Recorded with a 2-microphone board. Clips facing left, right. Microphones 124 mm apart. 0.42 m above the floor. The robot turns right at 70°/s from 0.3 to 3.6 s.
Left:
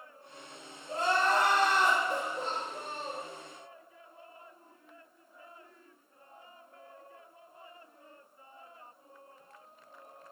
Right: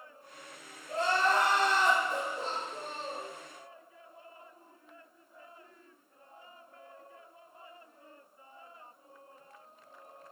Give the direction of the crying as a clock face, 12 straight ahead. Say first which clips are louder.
Even; 12 o'clock.